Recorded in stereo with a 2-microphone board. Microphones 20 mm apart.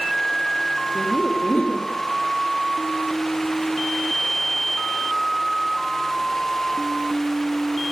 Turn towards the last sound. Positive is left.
turn(degrees=60)  # may be behind; listen again after turning